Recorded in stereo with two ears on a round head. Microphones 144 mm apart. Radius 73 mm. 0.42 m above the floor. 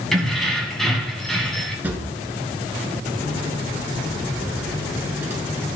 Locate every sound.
0.1 s keys jangling: centre (ahead or behind), 2.0 m
1.8 s a drawer: 10° right (ahead or behind), 1.4 m